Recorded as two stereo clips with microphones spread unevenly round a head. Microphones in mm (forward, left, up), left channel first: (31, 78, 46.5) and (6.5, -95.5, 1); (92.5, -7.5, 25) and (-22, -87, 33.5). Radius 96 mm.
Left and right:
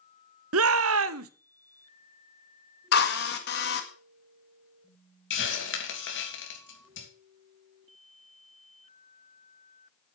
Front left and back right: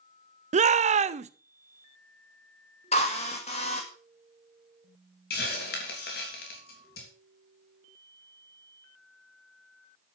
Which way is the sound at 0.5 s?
110° right.